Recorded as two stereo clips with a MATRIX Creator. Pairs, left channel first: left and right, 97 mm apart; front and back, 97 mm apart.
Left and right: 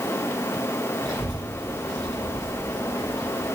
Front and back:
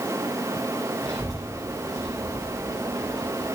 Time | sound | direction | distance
1.0 | a child speaking | 130° right | 3.5 m